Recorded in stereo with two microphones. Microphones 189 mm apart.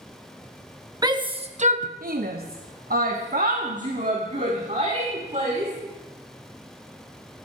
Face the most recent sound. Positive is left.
turn(degrees=-35)  # may be behind; listen again after turning